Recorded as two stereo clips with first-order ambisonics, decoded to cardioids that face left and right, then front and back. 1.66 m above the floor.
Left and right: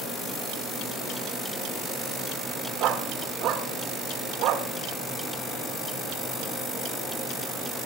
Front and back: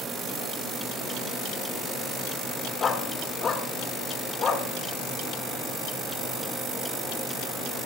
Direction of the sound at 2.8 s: 60° right.